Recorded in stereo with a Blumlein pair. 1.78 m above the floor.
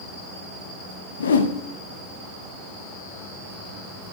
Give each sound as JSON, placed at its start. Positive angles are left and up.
{"t": 1.2, "sound": "a whoosh", "azimuth_deg": 65, "distance_m": 0.6}